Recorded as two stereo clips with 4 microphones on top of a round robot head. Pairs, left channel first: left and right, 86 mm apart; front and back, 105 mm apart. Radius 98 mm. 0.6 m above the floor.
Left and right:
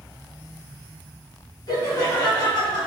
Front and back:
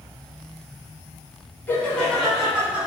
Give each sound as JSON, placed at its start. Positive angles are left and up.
{"t": 1.7, "sound": "laughter", "azimuth_deg": 65, "distance_m": 1.3}